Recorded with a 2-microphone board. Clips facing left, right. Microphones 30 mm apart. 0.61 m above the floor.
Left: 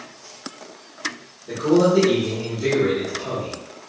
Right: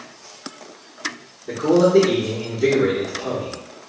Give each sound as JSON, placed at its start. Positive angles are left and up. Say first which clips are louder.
{"t": 1.5, "sound": "a man speaking", "louder": "right 2 dB", "side_deg": -40, "distance_m": 1.2}